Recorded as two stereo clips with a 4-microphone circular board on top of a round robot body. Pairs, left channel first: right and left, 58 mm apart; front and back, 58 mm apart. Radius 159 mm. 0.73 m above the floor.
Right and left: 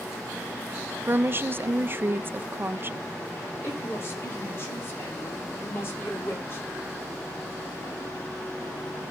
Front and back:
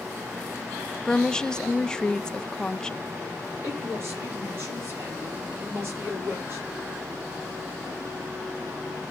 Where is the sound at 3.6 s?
135° right, 8 m.